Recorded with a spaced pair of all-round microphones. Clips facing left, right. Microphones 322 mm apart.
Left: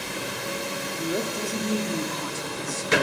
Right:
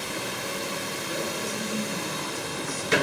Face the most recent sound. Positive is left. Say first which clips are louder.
# left 8 dB
turn(degrees=80)